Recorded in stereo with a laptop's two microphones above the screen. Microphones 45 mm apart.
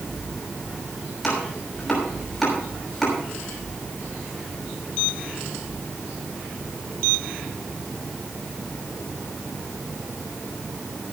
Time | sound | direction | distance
1.2 | chopping | 5° left (ahead or behind) | 6 m